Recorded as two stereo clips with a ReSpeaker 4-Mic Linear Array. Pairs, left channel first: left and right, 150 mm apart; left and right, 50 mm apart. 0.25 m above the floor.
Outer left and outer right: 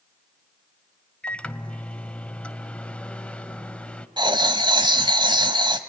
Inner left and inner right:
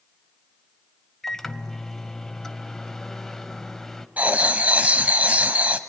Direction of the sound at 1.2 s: 5° left (ahead or behind).